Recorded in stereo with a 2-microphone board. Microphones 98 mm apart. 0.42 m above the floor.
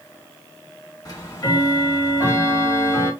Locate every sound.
1.1 s ticking: 40° left (ahead or behind), 1.1 m